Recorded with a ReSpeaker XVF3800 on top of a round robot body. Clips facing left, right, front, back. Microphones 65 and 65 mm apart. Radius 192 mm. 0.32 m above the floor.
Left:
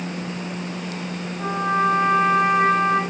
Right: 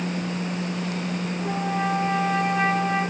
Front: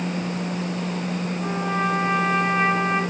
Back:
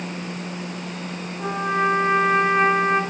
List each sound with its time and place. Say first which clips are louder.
1.4 s a trumpet: left 7 dB, back 4 dB; 135° left, 6.5 m